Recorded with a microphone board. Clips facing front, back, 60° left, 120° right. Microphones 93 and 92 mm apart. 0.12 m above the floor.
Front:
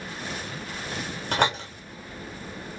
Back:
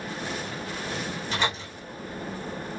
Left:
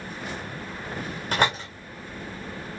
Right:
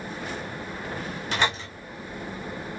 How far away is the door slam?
About 6 m.